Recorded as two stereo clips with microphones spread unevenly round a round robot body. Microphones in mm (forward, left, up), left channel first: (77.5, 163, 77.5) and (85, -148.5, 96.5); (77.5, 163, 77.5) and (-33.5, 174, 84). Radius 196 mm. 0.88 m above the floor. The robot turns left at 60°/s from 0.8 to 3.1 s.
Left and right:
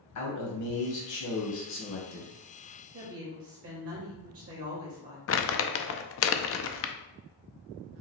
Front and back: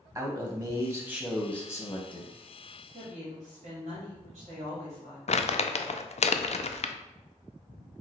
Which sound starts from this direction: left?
A man speaking, at 0.1 s.